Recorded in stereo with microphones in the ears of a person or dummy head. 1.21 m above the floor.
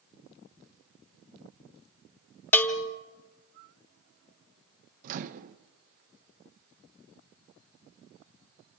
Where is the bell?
10° left (ahead or behind), 1.1 m.